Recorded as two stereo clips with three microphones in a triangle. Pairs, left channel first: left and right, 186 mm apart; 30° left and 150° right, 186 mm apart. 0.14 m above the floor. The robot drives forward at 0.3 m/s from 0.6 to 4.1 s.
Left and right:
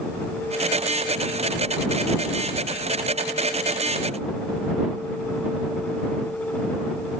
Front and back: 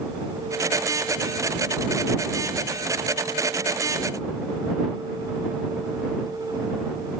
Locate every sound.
Only background noise.